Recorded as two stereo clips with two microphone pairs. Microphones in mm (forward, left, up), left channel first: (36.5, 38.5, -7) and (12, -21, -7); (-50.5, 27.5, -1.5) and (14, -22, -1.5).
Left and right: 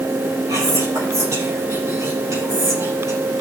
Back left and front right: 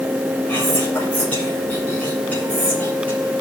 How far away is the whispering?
About 6.5 m.